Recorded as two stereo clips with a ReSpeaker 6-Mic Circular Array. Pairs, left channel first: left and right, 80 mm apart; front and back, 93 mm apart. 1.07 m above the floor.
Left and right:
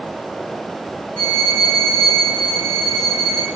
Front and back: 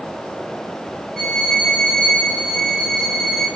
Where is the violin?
90° right, 2.5 m.